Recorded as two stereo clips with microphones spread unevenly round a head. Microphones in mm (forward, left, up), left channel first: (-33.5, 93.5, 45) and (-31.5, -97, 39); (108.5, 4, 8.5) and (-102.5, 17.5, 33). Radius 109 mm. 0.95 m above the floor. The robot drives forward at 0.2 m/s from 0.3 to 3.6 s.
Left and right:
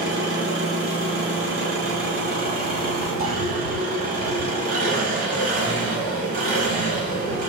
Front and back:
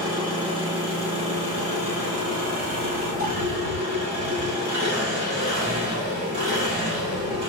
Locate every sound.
0.0 s an engine running: 115° right, 1.5 m; by 7.5 s 135° right, 1.9 m